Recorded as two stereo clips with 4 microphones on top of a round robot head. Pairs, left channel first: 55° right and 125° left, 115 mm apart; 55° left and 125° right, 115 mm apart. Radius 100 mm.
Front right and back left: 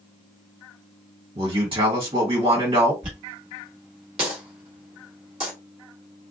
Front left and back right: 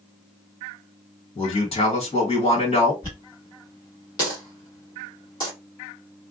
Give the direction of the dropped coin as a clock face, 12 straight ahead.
9 o'clock.